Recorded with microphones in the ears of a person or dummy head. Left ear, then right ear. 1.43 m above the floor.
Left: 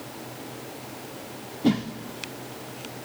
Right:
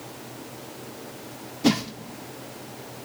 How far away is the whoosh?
About 0.9 m.